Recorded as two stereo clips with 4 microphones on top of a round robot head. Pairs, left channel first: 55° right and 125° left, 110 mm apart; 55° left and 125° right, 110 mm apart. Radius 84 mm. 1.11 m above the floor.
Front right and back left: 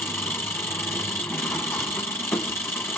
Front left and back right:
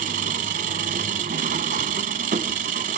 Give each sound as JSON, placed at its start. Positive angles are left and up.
{"t": 0.0, "sound": "an engine running", "azimuth_deg": -125, "distance_m": 1.0}